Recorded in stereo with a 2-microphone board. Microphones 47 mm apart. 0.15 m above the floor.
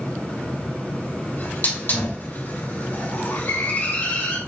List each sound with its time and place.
1.4 s a hiss: 45° left (ahead or behind), 3 m